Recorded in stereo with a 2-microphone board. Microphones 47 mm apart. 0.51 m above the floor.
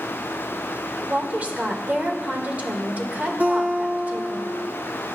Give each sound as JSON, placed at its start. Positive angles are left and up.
{"t": 1.1, "sound": "a woman speaking", "side_deg": -35, "distance_m": 1.8}
{"t": 3.4, "sound": "a guitar", "side_deg": -35, "distance_m": 2.5}